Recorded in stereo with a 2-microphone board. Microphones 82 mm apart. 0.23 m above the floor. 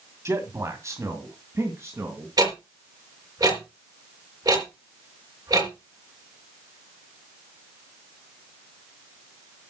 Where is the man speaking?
35° right (ahead or behind), 1.7 m.